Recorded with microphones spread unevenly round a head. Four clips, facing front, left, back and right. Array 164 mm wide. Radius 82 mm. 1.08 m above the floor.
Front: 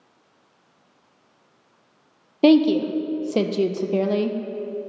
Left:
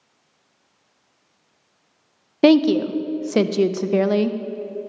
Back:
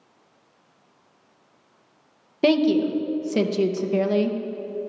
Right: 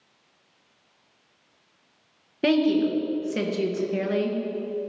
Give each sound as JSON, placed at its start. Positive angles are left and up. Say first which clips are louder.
{"t": 2.4, "sound": "a woman speaking", "louder": "left 6 dB, front 3 dB", "azimuth_deg": 55, "distance_m": 0.5}